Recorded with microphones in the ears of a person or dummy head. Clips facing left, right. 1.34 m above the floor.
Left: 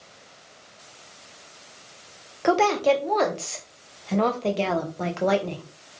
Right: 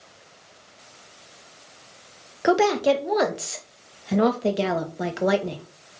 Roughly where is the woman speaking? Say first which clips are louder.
Right 1 dB; centre.